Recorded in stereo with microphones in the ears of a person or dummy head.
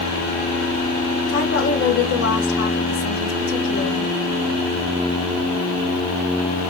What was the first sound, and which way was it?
A woman speaking, 70° left (ahead or behind).